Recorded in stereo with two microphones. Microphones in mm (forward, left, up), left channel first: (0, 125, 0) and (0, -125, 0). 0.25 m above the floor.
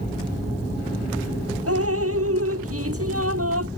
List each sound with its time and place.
1.7 s dripping: 65° right (ahead or behind)